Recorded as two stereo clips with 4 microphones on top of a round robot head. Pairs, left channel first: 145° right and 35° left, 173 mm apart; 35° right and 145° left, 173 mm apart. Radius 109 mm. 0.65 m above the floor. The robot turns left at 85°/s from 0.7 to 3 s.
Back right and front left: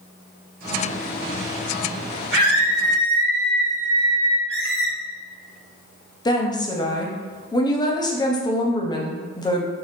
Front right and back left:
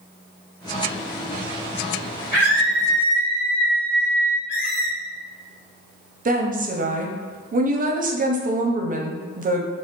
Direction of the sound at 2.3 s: 35° right.